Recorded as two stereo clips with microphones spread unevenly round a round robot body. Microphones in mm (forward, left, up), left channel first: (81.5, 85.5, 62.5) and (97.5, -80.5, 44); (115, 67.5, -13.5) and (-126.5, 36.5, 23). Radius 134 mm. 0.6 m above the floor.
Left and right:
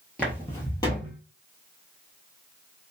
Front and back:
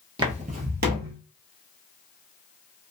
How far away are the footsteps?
About 0.6 m.